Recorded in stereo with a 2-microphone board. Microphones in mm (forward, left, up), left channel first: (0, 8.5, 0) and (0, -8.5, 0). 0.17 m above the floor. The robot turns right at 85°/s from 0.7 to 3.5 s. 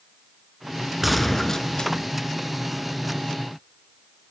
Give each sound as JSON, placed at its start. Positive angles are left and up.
{"t": 1.0, "sound": "a gunshot", "azimuth_deg": -15, "distance_m": 1.1}